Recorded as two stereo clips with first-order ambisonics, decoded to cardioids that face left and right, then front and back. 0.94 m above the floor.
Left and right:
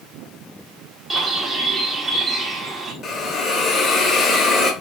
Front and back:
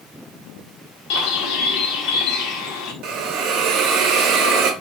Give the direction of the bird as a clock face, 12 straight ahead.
1 o'clock.